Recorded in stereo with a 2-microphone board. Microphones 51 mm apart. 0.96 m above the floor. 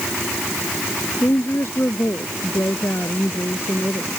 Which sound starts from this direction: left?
A woman speaking, at 1.2 s.